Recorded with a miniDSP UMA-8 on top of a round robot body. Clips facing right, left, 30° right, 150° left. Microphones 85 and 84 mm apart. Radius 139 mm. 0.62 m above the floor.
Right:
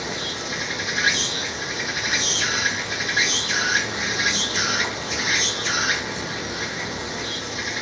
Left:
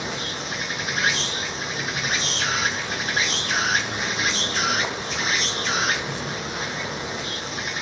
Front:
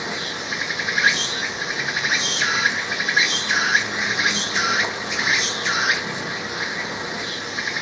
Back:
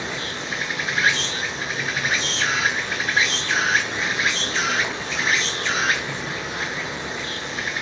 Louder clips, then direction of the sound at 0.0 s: Right 1 dB, front 1 dB; 45° left.